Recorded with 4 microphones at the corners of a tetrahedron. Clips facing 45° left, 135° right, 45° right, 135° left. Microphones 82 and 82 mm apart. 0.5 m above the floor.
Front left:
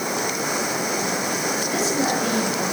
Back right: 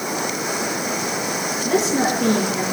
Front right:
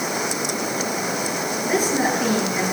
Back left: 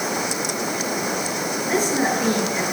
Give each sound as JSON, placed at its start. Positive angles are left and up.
{"t": 1.6, "sound": "a woman speaking", "azimuth_deg": -125, "distance_m": 7.0}